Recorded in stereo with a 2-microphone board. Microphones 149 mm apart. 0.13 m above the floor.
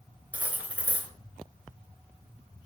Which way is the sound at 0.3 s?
10° right (ahead or behind).